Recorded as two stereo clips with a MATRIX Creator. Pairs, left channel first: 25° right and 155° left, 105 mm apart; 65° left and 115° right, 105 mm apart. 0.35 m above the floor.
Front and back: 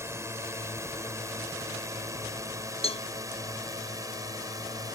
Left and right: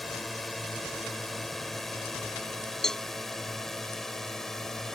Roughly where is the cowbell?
Ahead.